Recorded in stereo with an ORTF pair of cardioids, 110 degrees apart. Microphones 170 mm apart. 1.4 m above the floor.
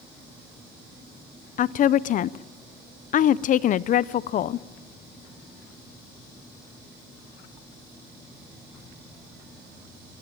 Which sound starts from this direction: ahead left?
A woman speaking, at 1.6 s.